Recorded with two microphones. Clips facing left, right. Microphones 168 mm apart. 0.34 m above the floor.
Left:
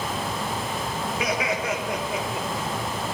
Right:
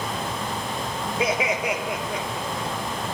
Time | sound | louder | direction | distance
1.2 | laughter | right 3 dB | 30° right (ahead or behind) | 1.1 m